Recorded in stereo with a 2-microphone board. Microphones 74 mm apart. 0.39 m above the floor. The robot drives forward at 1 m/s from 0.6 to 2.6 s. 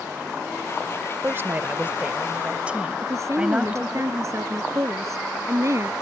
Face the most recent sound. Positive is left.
turn(degrees=-40)  # may be behind; listen again after turning